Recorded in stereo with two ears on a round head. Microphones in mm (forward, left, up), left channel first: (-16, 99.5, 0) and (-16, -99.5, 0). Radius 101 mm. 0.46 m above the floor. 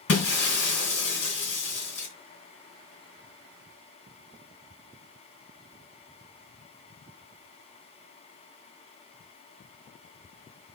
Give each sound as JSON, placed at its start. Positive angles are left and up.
{"t": 0.1, "sound": "breaking glass", "side_deg": 85, "distance_m": 3.5}